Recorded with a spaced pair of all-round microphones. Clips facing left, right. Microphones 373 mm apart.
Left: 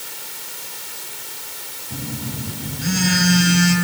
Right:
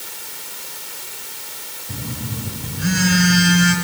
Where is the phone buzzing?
80° right, 8 m.